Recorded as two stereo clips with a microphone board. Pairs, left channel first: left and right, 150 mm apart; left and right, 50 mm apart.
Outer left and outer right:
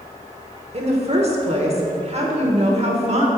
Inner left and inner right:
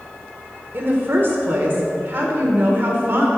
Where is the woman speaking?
45° right (ahead or behind), 1.2 m.